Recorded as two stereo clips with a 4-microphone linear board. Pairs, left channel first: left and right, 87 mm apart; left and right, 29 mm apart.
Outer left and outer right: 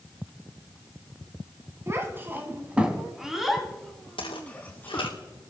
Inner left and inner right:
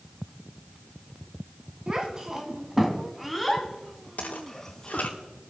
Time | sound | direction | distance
1.9 | a child speaking | 30° right (ahead or behind) | 1.8 m
4.2 | footsteps | 80° left | 3.5 m